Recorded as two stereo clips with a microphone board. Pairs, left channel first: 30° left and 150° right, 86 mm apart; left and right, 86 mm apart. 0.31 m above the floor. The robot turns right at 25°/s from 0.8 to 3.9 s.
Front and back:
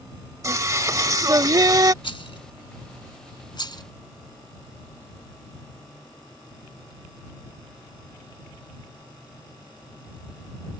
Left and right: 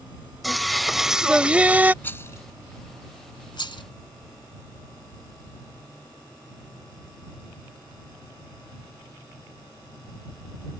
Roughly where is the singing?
Behind.